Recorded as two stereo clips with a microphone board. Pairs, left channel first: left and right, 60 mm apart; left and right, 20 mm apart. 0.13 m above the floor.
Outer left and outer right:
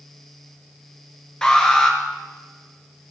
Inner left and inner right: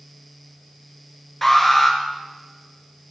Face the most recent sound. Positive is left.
turn(degrees=10)  # may be behind; listen again after turning